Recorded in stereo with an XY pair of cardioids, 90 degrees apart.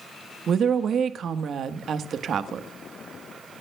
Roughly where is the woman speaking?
Right.